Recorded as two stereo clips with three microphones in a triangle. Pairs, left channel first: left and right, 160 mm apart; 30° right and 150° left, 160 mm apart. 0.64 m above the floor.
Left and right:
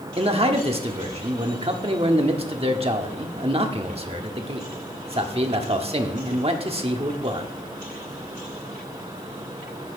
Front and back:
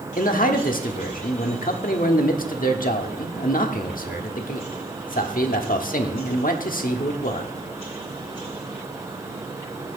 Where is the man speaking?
40° right, 1.3 m.